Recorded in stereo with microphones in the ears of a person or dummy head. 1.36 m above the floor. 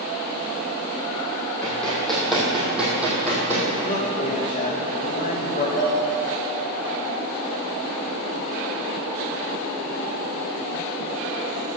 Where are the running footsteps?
5° left (ahead or behind), 3.5 m; by 3.7 s 15° right (ahead or behind), 3.5 m.